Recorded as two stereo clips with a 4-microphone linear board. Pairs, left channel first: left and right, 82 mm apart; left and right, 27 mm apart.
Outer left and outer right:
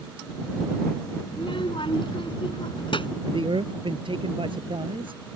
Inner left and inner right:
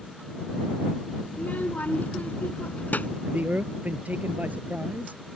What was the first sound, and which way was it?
A child speaking, 75° left (ahead or behind).